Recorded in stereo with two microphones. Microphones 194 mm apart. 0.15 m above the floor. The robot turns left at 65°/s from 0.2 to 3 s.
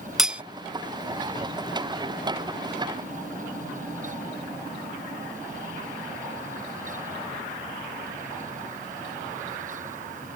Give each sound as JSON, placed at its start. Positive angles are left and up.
{"t": 0.2, "sound": "cutlery clinking", "side_deg": 0}